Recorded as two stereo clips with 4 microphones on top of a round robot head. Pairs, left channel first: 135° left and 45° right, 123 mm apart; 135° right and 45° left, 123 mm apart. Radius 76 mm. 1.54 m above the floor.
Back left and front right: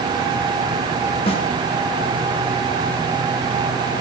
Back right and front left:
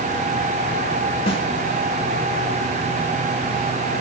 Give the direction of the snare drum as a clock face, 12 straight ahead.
6 o'clock.